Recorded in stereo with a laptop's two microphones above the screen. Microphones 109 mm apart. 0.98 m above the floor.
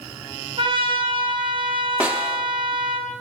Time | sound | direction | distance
0.6 | a trumpet | 55° right (ahead or behind) | 3 m
2.0 | a snare drum | 15° right (ahead or behind) | 0.9 m